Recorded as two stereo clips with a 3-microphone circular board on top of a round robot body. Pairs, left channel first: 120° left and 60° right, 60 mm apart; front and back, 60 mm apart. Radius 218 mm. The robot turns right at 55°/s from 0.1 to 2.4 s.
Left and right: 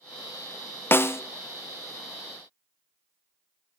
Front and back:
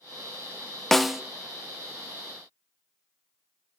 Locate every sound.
0.9 s a snare drum: 85° left, 0.7 m; by 1.2 s 100° left, 0.7 m